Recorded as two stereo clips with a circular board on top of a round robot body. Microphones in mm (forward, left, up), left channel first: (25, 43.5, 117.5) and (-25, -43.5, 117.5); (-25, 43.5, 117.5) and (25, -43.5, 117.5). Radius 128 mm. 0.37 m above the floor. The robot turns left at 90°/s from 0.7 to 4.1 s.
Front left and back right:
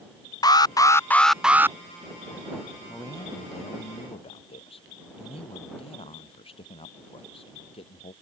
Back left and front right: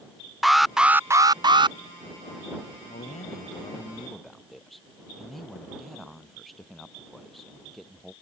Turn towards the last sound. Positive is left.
turn(degrees=30)